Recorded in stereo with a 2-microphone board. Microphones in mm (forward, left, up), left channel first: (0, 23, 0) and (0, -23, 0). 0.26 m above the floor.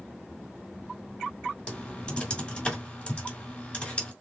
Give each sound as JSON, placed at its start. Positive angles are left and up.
{"t": 1.7, "sound": "typing on a keyboard", "side_deg": 25, "distance_m": 2.0}